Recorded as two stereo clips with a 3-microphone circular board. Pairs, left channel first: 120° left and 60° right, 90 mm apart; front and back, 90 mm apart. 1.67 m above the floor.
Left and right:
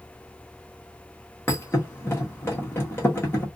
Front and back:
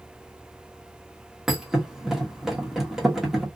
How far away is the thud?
About 1.1 m.